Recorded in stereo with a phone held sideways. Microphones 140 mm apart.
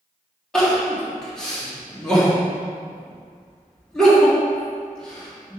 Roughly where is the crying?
Centre.